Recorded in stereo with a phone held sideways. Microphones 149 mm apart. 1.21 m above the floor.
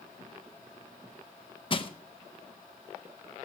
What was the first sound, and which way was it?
Crushing, 35° left (ahead or behind).